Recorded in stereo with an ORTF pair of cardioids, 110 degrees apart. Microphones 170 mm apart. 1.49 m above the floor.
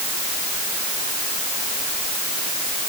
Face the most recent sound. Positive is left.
No sound to turn to.